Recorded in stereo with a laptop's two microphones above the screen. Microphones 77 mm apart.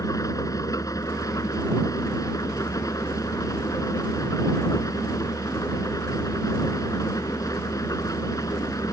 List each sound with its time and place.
0.0 s an engine running: 45° left (ahead or behind)